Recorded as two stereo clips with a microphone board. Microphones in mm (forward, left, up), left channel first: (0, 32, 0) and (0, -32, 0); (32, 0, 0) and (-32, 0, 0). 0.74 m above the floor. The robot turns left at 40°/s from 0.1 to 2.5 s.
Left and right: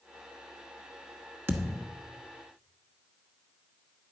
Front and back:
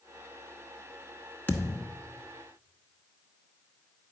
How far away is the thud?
About 0.9 m.